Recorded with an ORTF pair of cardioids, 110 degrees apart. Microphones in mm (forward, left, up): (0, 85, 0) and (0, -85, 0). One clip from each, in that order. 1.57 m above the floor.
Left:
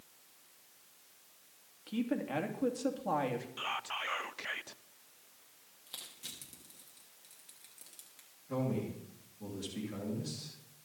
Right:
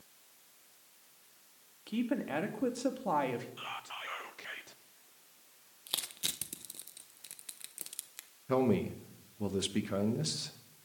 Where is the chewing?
No chewing in this recording.